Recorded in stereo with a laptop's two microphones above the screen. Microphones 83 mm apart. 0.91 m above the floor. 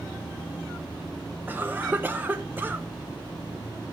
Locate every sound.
1.5 s a cough: 20° right (ahead or behind), 0.9 m